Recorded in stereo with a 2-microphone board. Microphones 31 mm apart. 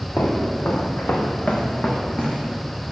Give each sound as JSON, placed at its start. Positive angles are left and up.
{"t": 0.2, "sound": "footsteps", "side_deg": 80, "distance_m": 1.8}